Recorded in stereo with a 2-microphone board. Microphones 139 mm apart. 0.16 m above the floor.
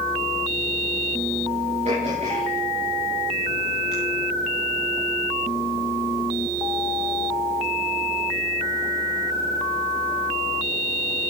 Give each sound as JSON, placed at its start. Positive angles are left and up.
{"t": 1.9, "sound": "throat clearing", "side_deg": -50, "distance_m": 6.5}